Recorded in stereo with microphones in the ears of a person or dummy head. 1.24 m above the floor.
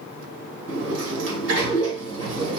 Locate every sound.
0.7 s a sliding door: 70° right (ahead or behind), 2.5 m